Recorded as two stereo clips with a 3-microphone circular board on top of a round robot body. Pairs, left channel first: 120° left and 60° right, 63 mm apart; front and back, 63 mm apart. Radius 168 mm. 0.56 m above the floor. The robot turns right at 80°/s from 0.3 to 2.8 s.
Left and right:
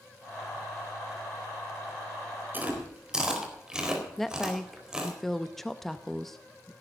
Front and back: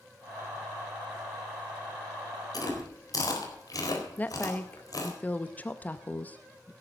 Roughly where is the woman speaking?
Ahead left.